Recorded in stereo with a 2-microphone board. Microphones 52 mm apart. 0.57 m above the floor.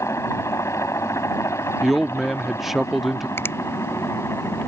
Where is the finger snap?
50° left (ahead or behind).